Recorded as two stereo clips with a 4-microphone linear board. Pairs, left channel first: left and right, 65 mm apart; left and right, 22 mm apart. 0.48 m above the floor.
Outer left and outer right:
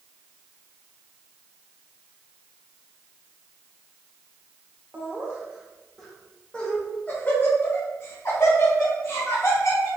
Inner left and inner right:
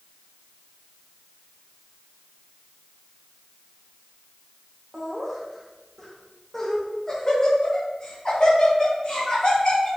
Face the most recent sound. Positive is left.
turn(degrees=50)  # may be behind; listen again after turning